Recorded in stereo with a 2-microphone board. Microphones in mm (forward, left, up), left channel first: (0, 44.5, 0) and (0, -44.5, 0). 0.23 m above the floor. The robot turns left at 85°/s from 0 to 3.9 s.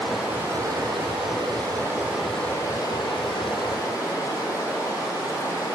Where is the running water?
10° left, 1.5 m; by 5.8 s 40° left, 1.5 m.